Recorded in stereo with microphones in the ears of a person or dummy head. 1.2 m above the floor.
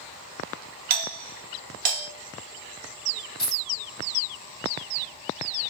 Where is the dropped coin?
20° right (ahead or behind), 1.3 m.